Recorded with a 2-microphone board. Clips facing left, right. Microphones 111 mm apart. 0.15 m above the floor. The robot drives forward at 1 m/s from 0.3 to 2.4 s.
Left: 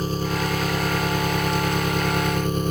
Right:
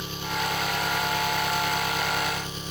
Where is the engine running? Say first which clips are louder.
Left 6 dB; 40° left (ahead or behind); by 2.7 s 50° left (ahead or behind).